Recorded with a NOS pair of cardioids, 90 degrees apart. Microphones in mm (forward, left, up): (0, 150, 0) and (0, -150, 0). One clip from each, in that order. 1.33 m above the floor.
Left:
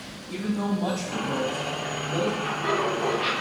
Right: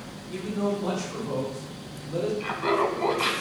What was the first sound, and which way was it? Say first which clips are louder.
A man speaking: right 1 dB; 55° left.